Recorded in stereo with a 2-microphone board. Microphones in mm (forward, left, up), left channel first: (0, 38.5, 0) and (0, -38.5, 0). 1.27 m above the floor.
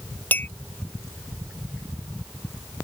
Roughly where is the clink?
Left.